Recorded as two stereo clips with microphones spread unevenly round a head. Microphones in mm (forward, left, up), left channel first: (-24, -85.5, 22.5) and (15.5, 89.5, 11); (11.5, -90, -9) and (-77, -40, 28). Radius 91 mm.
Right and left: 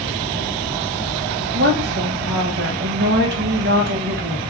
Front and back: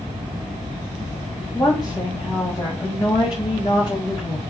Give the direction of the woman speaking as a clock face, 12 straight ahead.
11 o'clock.